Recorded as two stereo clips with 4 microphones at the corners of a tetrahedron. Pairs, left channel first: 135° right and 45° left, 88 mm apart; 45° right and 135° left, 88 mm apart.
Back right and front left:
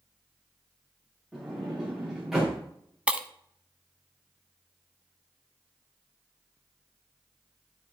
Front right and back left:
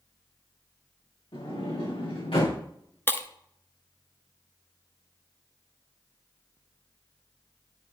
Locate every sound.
1.3 s a sliding door: 40° right, 5 m
3.1 s breaking glass: 20° right, 0.7 m